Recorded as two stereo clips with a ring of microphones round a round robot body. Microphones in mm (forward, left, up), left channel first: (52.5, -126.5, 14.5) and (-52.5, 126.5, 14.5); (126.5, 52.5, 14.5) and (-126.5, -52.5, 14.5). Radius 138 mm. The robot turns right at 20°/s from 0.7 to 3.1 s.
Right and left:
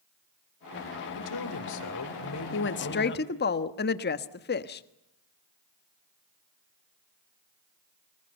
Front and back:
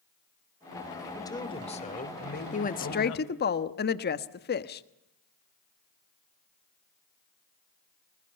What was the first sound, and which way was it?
A man speaking, 55° right.